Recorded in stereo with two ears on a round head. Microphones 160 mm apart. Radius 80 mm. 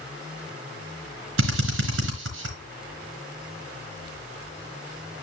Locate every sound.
1.4 s a drill: 80° right, 3.5 m